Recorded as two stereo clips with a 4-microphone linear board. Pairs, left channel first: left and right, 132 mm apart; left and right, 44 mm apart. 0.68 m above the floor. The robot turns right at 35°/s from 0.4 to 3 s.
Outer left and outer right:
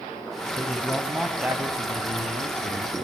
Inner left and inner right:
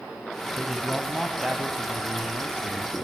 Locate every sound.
0.6 s a man speaking: 160° left, 5 m; by 3.0 s 115° right, 5 m